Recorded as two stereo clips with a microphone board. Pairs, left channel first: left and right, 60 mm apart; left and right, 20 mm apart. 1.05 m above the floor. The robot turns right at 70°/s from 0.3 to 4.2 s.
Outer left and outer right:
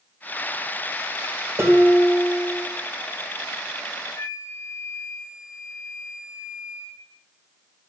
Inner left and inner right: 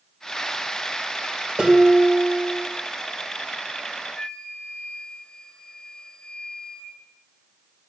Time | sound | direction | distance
1.6 | dishes clattering | 125° right | 3 m
4.1 | a flute | 80° left | 2.5 m